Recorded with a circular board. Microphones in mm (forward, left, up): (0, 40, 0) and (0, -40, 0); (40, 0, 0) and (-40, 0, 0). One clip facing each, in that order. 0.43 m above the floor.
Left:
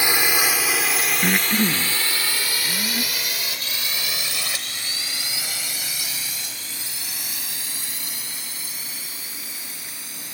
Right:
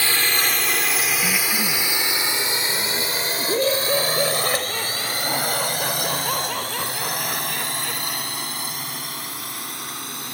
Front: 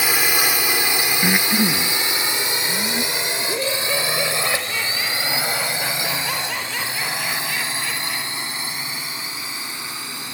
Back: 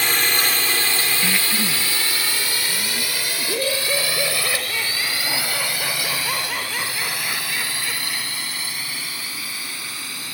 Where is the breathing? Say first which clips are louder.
Left 3 dB, front 4 dB; 45° left.